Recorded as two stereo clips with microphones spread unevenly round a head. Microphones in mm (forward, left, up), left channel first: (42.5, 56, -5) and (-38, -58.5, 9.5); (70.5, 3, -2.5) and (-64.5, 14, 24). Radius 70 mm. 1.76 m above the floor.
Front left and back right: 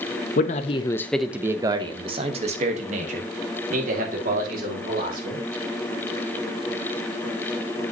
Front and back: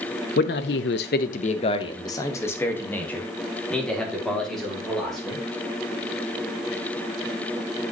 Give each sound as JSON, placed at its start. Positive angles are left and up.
{"t": 0.4, "sound": "a man speaking", "azimuth_deg": 20, "distance_m": 0.7}